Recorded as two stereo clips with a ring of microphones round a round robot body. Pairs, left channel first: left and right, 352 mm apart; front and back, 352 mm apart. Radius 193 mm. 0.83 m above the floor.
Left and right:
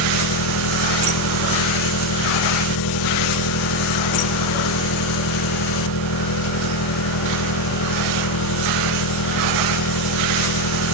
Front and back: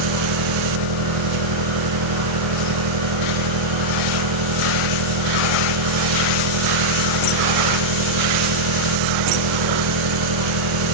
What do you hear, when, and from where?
0.0 s an engine running: 140° left